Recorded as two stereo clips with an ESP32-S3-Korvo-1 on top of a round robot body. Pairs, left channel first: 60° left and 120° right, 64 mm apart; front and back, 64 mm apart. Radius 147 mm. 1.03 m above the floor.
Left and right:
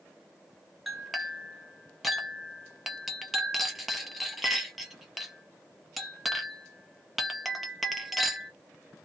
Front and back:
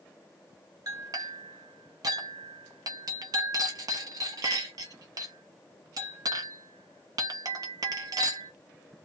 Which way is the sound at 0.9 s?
150° left.